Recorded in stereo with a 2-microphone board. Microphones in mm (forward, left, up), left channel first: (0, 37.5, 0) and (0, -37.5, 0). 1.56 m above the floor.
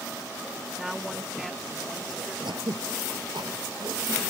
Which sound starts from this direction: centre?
A woman speaking, at 0.8 s.